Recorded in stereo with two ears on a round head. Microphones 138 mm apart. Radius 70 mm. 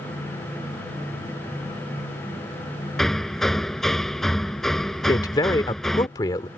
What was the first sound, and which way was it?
Hammering, centre (ahead or behind).